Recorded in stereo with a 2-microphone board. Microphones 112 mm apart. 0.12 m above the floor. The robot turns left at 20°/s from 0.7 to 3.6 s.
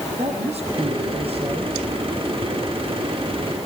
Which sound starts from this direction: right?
A woman speaking, at 0.2 s.